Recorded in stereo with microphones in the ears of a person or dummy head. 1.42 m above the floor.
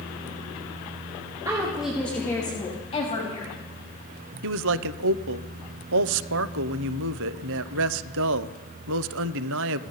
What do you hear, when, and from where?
1.4 s a woman speaking: 15° right (ahead or behind), 2.5 m; by 3.6 s 35° left (ahead or behind), 4 m
4.4 s a man speaking: 65° right (ahead or behind), 0.5 m